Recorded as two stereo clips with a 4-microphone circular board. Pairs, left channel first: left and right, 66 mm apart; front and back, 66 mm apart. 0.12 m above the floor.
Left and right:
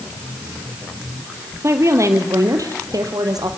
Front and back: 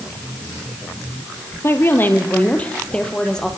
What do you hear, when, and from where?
1.6 s a woman speaking: 50° right, 3.5 m; by 3.5 s 80° right, 4 m